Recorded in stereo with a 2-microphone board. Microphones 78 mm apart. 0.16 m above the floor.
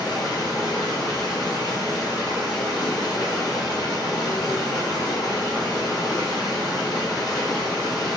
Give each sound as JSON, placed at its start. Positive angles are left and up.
{"t": 0.0, "sound": "running water", "side_deg": 55, "distance_m": 1.9}